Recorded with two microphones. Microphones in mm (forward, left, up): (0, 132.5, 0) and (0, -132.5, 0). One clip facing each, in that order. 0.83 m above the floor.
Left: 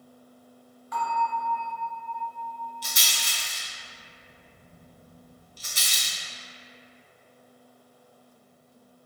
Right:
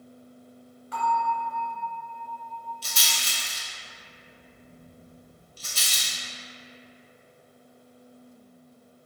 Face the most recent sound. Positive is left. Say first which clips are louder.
# right 1 dB
turn(degrees=15)  # may be behind; listen again after turning